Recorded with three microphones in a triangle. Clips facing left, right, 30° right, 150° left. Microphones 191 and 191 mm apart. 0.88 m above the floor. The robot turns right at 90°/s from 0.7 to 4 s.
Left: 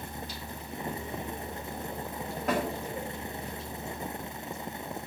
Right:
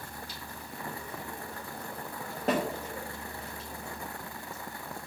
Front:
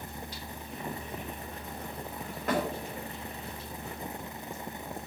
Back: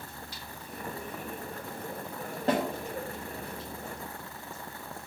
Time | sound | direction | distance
2.5 | a snare drum | 150° right | 2 m